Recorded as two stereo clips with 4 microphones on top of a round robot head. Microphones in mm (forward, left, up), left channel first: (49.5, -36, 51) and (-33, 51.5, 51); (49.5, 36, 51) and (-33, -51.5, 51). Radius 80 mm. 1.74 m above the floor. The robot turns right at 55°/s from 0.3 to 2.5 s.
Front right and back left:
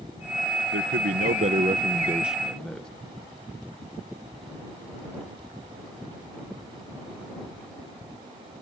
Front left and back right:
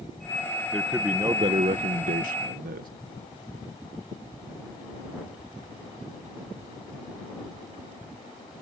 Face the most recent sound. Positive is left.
turn(degrees=-130)